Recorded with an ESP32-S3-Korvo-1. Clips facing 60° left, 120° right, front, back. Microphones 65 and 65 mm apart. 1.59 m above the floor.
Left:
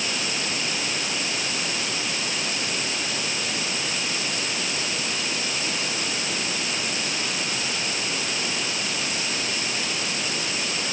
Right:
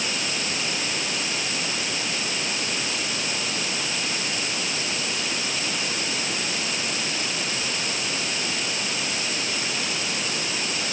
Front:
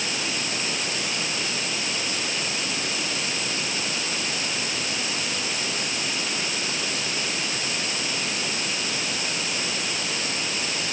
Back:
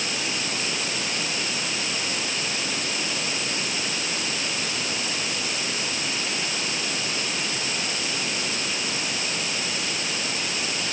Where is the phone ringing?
No phone ringing in this recording.